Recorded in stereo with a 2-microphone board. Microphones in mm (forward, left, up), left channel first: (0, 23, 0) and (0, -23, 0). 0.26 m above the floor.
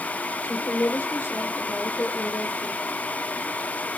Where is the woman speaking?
75° left (ahead or behind), 5.5 m; by 2.8 s 65° left (ahead or behind), 5 m.